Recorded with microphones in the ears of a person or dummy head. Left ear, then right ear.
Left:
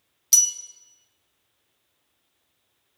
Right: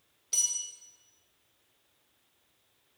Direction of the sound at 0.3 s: 75° left (ahead or behind).